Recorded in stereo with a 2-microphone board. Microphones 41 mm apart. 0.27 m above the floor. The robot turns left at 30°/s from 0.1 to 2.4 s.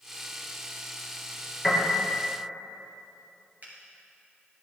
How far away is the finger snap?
About 3.5 m.